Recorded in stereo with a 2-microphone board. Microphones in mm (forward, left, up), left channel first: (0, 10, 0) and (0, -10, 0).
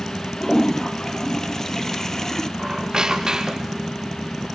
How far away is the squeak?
About 3 m.